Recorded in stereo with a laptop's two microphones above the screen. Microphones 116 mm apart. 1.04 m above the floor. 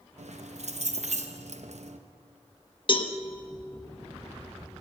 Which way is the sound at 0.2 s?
75° right (ahead or behind).